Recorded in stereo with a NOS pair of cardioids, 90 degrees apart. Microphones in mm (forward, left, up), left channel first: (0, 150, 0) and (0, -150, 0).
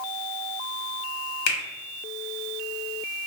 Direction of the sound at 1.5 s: 65° left.